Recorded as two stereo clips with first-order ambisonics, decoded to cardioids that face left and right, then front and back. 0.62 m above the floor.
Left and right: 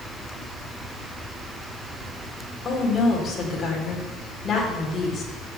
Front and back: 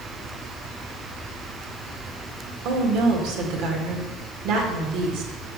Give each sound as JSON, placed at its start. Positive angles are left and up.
{"t": 2.6, "sound": "a woman speaking", "azimuth_deg": 160, "distance_m": 2.0}